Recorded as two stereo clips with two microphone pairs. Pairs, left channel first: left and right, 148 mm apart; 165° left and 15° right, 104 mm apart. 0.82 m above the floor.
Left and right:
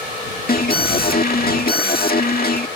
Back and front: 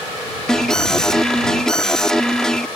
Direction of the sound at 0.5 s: 85° left.